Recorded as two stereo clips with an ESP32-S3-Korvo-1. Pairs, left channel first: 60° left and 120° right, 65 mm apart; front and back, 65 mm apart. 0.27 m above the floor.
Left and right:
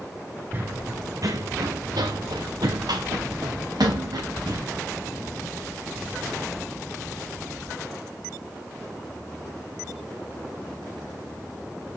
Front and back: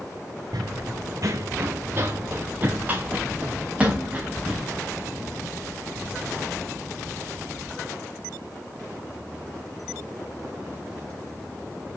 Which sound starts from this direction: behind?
Running footsteps, at 0.5 s.